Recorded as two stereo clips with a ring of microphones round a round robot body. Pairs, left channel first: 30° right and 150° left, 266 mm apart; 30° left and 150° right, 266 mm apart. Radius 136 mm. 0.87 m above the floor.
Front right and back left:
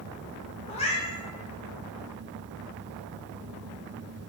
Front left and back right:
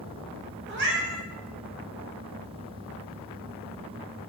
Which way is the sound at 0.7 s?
100° right.